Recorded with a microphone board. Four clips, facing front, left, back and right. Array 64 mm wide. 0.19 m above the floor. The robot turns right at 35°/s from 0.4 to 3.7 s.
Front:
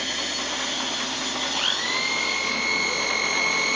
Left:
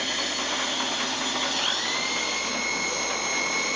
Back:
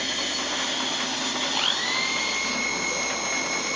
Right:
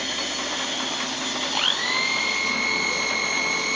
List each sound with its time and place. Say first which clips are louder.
1.5 s a blender: right 3 dB, front 1 dB; 100° right, 1.9 m; by 3.8 s 25° right, 1.9 m